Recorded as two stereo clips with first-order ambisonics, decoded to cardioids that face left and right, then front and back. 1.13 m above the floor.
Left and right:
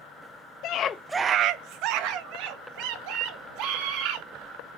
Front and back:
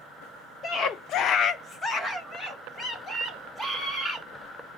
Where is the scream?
65° left, 0.8 m; by 4.3 s 80° right, 4.5 m.